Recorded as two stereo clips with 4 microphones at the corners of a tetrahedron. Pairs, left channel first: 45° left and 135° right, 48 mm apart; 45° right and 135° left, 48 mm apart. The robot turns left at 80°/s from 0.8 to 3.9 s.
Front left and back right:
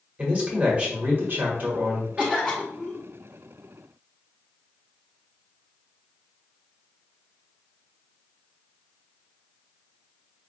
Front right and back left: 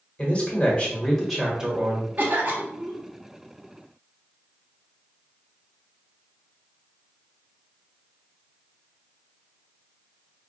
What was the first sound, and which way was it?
A man speaking, 90° right.